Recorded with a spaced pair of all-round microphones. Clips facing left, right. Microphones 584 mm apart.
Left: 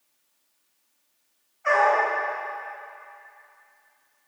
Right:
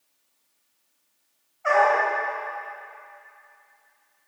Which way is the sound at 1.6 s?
10° right (ahead or behind).